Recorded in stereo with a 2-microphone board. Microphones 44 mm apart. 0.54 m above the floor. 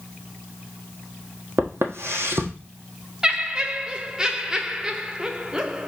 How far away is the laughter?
About 0.8 m.